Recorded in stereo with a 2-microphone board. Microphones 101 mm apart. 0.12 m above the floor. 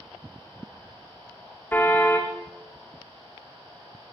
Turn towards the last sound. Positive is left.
turn(degrees=15)  # may be behind; listen again after turning